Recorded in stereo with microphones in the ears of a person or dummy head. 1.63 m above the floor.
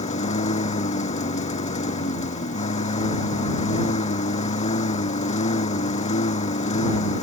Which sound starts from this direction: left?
A lawn mower, at 0.0 s.